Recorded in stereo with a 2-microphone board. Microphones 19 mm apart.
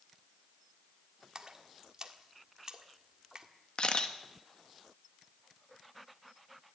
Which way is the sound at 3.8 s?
50° left (ahead or behind).